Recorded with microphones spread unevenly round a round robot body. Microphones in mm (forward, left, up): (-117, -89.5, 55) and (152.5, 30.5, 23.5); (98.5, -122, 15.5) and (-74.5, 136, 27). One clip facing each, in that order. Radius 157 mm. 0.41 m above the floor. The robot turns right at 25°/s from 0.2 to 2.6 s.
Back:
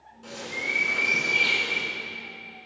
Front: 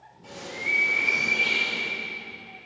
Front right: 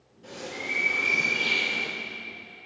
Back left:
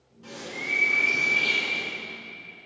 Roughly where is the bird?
Behind.